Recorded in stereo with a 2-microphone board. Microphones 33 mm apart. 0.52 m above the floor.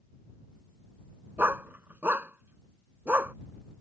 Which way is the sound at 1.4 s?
80° right.